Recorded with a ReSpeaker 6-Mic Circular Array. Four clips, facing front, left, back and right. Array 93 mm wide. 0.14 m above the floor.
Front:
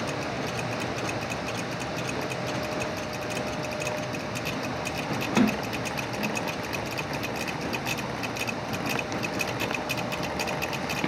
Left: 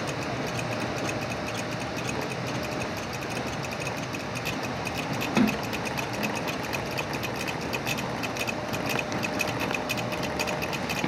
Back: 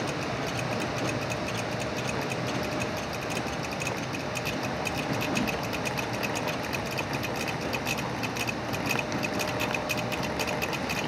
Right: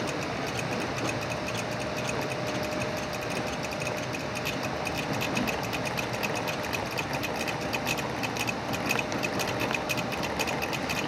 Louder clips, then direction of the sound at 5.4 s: Left 5 dB, front 5 dB; 35° left.